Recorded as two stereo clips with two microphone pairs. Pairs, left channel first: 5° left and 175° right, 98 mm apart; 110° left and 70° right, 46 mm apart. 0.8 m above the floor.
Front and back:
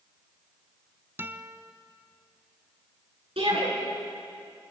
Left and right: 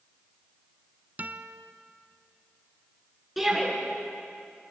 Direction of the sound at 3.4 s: 160° right.